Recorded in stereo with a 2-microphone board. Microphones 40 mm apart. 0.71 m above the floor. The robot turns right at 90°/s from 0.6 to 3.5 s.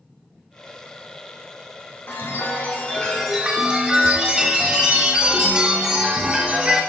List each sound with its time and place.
2.1 s a chime: 75° left, 1.7 m; by 6.8 s 155° right, 1.7 m